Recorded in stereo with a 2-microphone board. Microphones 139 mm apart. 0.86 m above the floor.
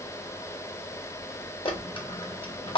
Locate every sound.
1.6 s a dropped coin: 40° left (ahead or behind), 0.8 m